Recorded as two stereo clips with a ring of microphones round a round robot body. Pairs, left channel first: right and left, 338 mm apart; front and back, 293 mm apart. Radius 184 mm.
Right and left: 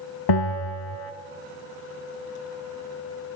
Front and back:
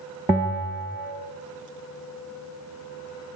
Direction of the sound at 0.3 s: 95° right.